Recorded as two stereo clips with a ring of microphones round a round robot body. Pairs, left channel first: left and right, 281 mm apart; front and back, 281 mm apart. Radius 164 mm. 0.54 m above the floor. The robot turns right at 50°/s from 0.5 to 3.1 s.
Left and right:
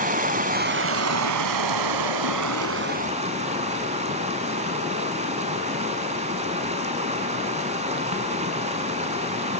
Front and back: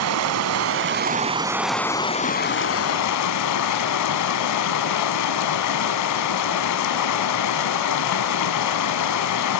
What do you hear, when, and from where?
0.0 s running water: 150° right, 0.8 m; by 9.6 s 20° right, 0.8 m